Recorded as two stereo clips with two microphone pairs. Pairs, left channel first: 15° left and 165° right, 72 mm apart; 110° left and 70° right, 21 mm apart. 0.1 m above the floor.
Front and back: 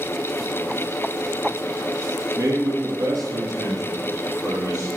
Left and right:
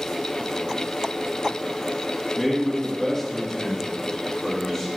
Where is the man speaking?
175° right, 3 m.